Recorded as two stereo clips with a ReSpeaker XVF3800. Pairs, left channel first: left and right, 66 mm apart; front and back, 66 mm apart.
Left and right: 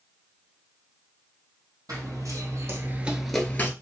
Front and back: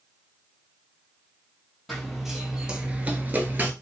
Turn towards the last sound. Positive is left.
turn(degrees=130)